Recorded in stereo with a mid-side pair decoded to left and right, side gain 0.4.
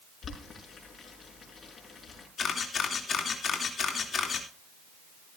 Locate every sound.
0.2 s boiling: 50° left, 5.5 m
2.4 s a camera shutter: 55° left, 3 m